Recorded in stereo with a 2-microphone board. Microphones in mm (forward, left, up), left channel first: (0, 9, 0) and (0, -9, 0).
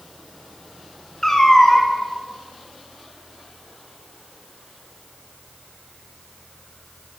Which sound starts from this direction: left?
A cat meowing, at 1.2 s.